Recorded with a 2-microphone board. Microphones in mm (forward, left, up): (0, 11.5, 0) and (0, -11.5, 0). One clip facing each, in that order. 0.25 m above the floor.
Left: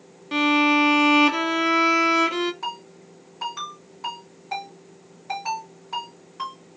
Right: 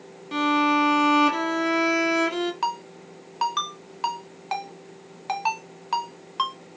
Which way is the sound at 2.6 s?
55° right (ahead or behind).